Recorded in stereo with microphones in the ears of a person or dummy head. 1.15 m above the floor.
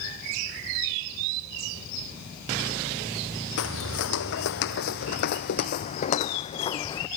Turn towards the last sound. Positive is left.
turn(degrees=20)  # may be behind; listen again after turning